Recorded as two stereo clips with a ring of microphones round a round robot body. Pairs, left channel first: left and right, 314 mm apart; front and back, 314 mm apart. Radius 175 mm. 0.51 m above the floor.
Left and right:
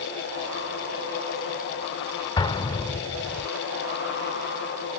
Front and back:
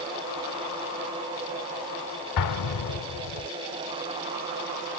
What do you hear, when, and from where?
2.4 s an explosion: 15° left